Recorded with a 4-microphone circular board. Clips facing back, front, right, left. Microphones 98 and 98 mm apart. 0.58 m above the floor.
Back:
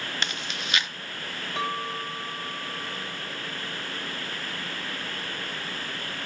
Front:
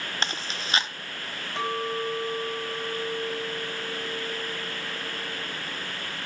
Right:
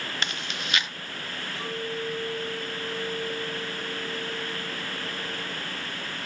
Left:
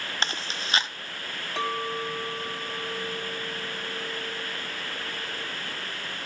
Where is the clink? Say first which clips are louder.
Front 2 dB, left 4 dB; 90° left, 3 m.